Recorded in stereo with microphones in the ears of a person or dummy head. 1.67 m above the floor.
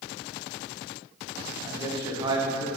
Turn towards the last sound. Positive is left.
turn(degrees=-25)  # may be behind; listen again after turning